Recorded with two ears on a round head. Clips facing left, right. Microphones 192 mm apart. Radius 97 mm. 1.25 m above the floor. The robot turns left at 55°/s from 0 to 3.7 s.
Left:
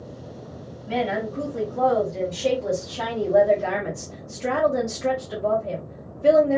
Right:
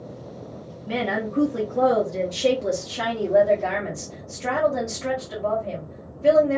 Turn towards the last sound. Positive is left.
turn(degrees=165)